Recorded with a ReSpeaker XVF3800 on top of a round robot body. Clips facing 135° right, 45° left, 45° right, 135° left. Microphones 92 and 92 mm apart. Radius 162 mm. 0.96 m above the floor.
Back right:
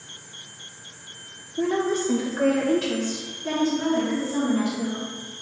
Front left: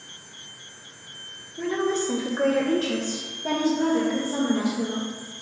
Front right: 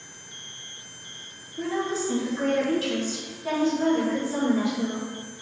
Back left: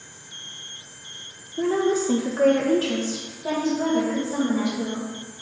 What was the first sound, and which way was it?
A woman speaking, 175° left.